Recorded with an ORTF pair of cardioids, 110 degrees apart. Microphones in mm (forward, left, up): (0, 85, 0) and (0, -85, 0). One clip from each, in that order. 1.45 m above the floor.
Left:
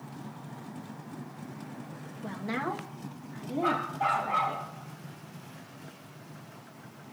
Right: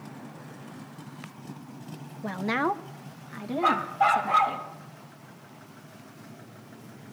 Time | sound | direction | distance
2.2 | a woman speaking | 35° right | 0.9 m
3.6 | a dog barking | 45° right | 3.5 m